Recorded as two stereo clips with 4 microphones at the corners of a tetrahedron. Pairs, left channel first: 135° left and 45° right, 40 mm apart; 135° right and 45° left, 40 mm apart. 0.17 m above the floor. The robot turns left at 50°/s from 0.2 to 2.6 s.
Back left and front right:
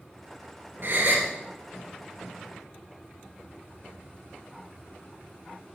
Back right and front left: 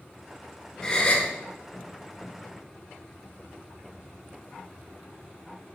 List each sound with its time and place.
0.8 s a gasp: 55° right, 1.4 m; by 1.3 s 80° right, 1.4 m